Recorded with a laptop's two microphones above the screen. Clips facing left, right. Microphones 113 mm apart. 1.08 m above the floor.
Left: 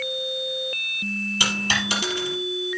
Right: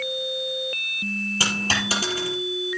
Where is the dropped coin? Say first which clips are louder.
Even; 40° right (ahead or behind), 4.5 m.